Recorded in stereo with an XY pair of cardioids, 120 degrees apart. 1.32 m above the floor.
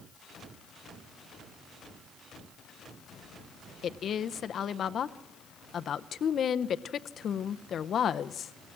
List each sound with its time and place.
3.8 s a woman speaking: 45° left, 0.7 m